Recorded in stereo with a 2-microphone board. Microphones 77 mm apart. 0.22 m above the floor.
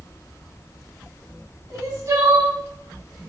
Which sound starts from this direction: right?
Crying, at 1.7 s.